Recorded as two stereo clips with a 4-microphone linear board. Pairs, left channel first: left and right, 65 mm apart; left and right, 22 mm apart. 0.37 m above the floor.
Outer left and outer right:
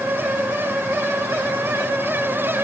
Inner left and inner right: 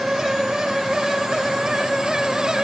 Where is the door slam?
No door slam in this recording.